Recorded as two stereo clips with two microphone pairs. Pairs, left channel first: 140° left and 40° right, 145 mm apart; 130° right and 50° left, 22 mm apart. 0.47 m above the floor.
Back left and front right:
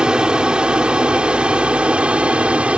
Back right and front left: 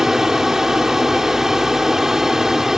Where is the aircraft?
30° left; by 2.8 s 25° left.